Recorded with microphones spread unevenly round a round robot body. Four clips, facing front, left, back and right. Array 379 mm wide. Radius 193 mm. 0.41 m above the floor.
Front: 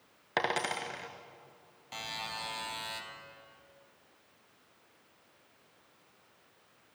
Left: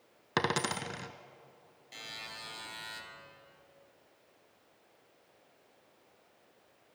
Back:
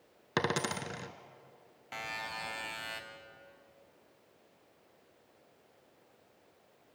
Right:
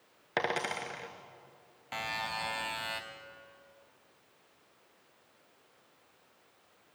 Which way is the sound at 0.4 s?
135° left.